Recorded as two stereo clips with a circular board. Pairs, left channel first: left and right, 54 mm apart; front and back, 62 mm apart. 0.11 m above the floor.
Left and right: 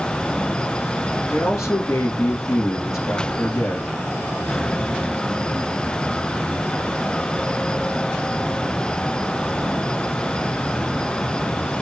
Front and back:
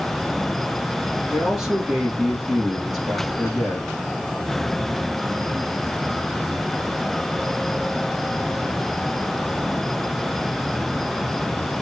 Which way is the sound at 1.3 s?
95° left.